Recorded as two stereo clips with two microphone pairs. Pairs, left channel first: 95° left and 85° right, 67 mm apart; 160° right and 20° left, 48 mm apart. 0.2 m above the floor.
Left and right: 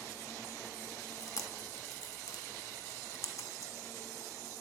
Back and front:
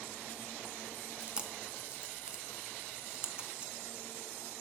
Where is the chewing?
85° left, 0.6 m.